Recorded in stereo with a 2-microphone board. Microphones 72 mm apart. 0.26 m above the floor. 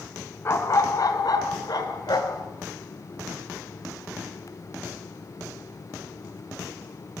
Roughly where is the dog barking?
Left.